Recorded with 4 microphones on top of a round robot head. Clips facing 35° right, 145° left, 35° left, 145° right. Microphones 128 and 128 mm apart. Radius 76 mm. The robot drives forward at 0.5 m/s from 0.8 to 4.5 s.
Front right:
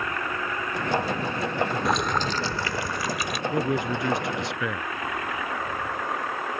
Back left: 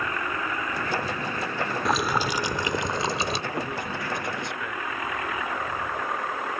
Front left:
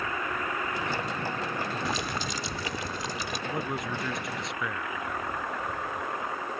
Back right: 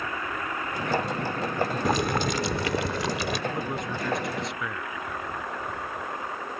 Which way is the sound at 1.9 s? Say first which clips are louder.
Even, back right 7 dB; 125° right.